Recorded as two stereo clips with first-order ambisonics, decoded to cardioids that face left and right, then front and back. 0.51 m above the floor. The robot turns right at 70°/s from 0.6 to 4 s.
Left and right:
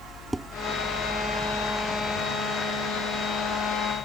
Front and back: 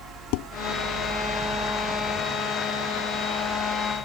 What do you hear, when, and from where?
0.3 s dishes clattering: 5° right